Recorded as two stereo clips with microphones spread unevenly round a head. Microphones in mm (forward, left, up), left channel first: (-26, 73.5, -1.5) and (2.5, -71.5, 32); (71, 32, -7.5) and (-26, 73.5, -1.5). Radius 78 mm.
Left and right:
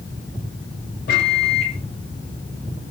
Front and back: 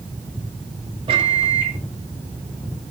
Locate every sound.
1.1 s a microwave: 130° left, 1.2 m